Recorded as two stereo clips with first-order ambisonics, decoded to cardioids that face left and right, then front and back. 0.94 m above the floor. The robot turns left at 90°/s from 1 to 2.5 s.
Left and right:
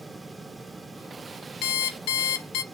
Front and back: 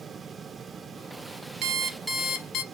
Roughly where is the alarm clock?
Behind left.